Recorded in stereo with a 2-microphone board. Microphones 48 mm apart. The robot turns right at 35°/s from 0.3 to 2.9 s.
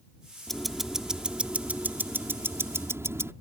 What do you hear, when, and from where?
0.5 s ticking: 175° left; by 3.3 s 100° right